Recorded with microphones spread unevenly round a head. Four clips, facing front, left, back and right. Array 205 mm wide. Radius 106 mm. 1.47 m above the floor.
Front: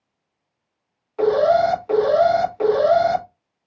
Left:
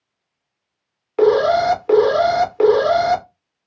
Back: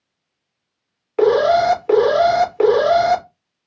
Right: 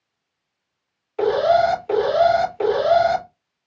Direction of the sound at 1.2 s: 140° left.